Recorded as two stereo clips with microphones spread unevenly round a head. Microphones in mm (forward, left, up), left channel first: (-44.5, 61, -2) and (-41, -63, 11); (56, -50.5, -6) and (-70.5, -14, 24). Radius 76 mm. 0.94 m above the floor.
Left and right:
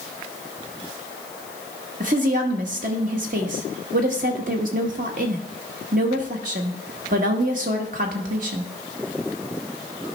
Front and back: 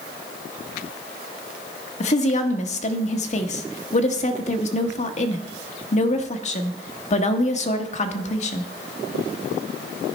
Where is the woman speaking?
45° right, 1.0 m.